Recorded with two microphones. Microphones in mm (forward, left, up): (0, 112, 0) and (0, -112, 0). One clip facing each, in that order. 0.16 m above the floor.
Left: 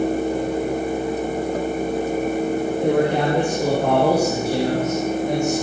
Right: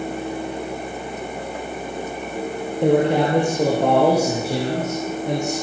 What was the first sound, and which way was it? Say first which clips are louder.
A man speaking: right 4 dB; 70° right (ahead or behind).